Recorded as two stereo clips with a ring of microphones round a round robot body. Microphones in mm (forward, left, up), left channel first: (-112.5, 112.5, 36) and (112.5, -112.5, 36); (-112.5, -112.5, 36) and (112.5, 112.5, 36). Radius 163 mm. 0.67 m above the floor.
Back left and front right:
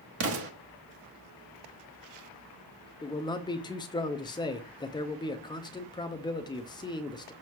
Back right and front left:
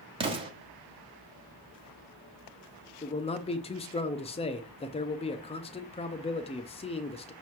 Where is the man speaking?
170° right, 0.6 m.